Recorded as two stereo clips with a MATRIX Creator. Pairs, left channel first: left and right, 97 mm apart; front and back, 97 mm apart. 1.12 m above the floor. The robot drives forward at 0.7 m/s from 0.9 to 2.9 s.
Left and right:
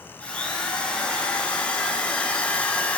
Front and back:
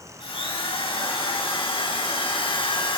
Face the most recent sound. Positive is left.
turn(degrees=15)